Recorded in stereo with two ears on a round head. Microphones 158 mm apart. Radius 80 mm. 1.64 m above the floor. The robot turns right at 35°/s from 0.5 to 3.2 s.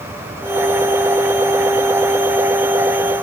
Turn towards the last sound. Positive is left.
No sound to turn to.